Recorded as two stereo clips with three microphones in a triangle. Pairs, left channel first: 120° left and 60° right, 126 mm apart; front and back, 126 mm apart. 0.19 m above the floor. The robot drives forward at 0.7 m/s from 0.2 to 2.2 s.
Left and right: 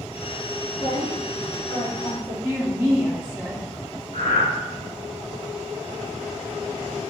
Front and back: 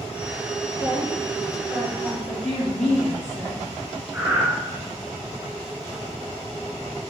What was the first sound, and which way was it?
A woman speaking, 155° left.